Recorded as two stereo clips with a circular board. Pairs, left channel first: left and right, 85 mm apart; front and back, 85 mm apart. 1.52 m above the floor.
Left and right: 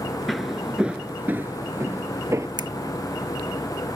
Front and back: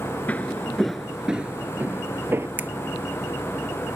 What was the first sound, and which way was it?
Footsteps, straight ahead.